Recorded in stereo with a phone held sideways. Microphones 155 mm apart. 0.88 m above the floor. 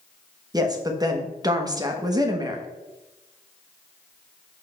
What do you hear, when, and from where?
0.5 s a woman speaking: 25° right (ahead or behind), 1.0 m